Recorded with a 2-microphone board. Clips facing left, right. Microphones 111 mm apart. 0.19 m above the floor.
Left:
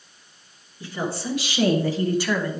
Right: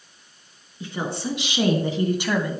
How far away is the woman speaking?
About 2.5 m.